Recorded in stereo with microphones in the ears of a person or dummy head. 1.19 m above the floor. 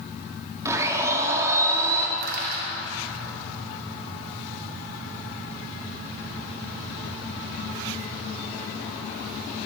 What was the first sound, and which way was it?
A blender, 15° right (ahead or behind).